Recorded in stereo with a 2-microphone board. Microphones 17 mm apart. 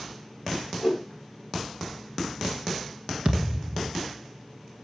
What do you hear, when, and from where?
0.8 s a whoosh: 30° right (ahead or behind), 3.5 m
3.2 s a thud: 50° right (ahead or behind), 1.9 m